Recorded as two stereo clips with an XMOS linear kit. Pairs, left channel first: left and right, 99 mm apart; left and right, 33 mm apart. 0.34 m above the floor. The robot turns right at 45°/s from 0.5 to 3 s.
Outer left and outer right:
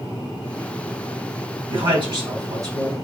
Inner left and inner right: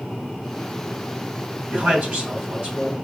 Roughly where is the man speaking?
Right.